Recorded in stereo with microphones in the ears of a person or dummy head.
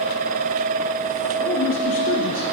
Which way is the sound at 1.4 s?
45° left (ahead or behind).